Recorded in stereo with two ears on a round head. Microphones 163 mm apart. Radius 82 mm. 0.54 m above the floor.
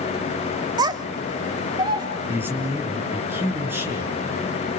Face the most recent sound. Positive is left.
turn(degrees=-10)  # may be behind; listen again after turning